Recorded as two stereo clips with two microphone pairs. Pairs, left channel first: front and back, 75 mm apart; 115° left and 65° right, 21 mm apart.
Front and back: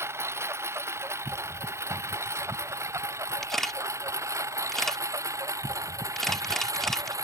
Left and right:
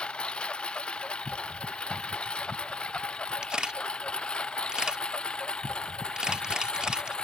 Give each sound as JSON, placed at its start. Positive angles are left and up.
{"t": 0.0, "sound": "a lawn mower", "azimuth_deg": 130}
{"t": 3.4, "sound": "a camera shutter", "azimuth_deg": -85}